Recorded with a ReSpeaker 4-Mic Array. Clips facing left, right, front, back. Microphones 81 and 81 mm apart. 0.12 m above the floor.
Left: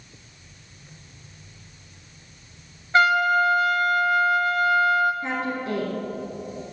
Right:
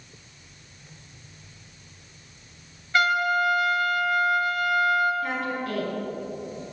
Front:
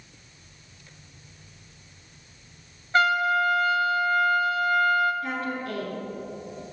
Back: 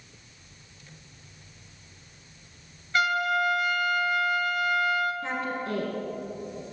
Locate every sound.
2.9 s a trumpet: 40° left, 0.6 m
5.2 s a woman speaking: 140° left, 1.4 m